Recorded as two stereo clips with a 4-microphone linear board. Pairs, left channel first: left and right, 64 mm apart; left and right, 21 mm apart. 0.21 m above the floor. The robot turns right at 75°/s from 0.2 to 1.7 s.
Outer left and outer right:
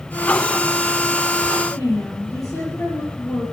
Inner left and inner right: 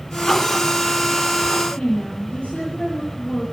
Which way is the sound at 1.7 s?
75° left (ahead or behind).